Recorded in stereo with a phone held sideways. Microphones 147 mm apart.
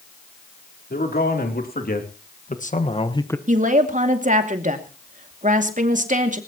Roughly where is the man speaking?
Left.